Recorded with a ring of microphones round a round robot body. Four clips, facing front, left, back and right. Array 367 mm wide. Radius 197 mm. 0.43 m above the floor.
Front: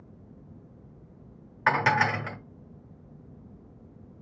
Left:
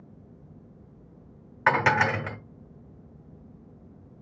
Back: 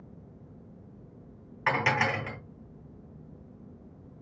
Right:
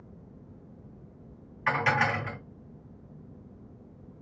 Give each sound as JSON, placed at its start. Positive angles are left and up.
{"t": 1.7, "sound": "dishes clattering", "azimuth_deg": 70, "distance_m": 1.1}